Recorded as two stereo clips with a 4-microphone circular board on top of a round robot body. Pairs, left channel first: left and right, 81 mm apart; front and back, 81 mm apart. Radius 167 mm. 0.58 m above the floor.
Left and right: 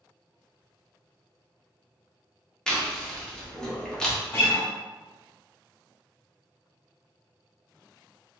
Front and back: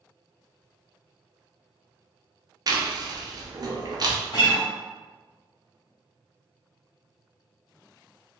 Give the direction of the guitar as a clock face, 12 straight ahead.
11 o'clock.